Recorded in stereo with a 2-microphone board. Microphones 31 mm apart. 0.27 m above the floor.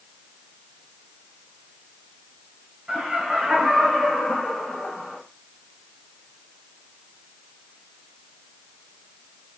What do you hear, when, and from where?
2.9 s laughter: 30° right (ahead or behind), 1.4 m; by 5.2 s 15° left (ahead or behind), 1.4 m